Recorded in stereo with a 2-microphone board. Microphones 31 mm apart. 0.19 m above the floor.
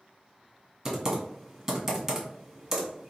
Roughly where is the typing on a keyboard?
Centre.